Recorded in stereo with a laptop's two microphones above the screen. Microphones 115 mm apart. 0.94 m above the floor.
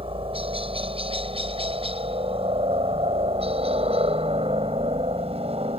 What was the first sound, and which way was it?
A helicopter, 55° right (ahead or behind).